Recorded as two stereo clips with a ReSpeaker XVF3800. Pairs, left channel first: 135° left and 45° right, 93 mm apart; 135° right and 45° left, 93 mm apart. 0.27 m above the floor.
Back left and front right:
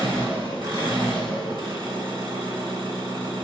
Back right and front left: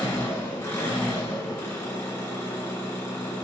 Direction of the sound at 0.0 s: 75° right.